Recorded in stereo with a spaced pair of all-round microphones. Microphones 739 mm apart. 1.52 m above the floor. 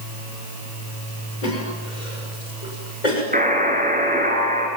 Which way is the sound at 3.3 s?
10° right (ahead or behind).